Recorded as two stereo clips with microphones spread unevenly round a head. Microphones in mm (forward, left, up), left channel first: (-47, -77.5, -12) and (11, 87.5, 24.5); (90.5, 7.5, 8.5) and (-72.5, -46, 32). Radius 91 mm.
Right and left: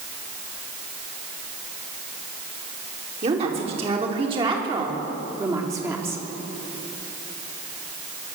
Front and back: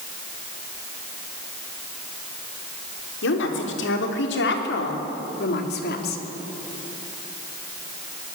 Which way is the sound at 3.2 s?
10° left.